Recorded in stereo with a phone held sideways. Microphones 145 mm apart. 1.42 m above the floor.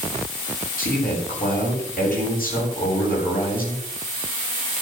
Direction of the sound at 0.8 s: 75° left (ahead or behind).